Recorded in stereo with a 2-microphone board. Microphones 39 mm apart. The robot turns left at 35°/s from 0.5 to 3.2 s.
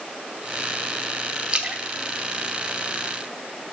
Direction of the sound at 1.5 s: 25° right (ahead or behind).